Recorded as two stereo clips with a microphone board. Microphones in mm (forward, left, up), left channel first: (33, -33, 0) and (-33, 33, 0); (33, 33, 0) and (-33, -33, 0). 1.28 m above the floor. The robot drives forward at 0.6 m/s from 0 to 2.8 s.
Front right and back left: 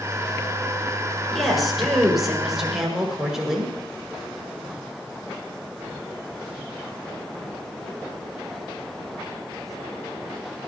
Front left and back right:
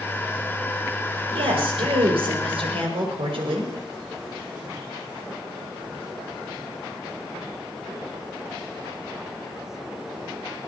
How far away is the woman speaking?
About 6 m.